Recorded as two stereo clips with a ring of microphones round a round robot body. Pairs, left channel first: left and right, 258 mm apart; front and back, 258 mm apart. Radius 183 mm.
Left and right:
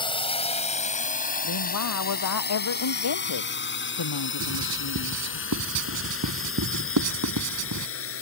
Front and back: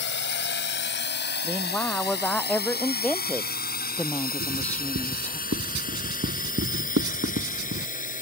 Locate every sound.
0.0 s a drone: 25° left; by 8.2 s 60° left
1.4 s a woman speaking: 85° left
4.4 s writing: 125° right